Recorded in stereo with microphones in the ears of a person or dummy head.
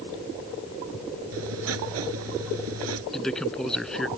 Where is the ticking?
I don't hear ticking.